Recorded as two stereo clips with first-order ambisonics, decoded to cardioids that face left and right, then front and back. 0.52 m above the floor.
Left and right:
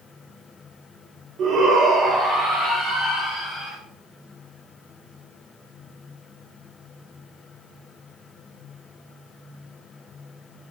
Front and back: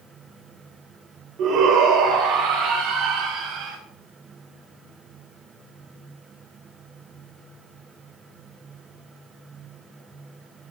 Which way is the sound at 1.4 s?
140° right.